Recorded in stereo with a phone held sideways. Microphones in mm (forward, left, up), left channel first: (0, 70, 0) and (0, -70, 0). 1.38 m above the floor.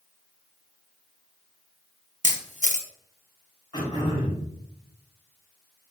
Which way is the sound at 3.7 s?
35° left (ahead or behind).